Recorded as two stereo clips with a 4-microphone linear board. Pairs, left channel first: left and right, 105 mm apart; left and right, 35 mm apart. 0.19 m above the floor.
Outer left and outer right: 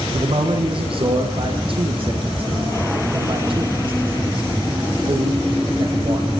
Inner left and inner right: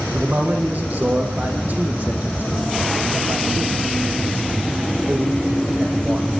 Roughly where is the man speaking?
Right.